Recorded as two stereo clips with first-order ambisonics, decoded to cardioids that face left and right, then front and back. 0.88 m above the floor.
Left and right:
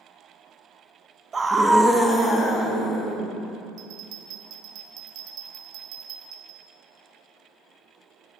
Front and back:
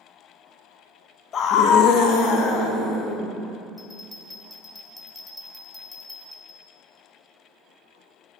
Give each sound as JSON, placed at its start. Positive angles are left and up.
{"t": 1.3, "sound": "a scream", "azimuth_deg": -30, "distance_m": 0.6}
{"t": 3.8, "sound": "a bell", "azimuth_deg": -80, "distance_m": 1.1}